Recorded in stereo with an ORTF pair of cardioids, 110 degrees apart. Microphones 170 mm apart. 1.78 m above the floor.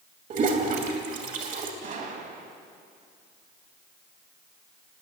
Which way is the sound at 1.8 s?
55° right.